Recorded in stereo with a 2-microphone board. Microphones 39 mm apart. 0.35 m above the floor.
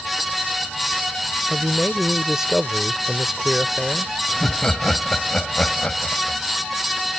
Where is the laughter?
20° left (ahead or behind).